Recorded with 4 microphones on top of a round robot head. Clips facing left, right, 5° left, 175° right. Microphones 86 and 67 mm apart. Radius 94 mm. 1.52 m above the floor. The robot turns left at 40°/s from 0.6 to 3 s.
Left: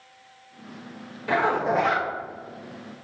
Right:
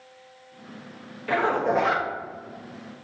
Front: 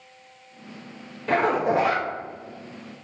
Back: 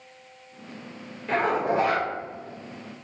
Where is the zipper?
20° left, 0.6 m; by 2.1 s 10° right, 0.6 m.